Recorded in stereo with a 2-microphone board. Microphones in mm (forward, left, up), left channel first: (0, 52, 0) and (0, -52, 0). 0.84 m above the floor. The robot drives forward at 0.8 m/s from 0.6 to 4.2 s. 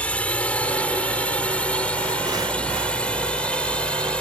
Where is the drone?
10° left (ahead or behind).